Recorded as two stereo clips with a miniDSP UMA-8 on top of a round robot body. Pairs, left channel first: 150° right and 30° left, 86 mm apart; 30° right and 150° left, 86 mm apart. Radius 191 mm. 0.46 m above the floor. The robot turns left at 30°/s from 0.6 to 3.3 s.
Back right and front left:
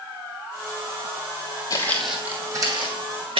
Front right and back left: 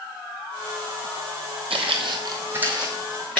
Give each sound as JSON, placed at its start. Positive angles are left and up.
{"t": 1.7, "sound": "footsteps", "azimuth_deg": 160, "distance_m": 1.1}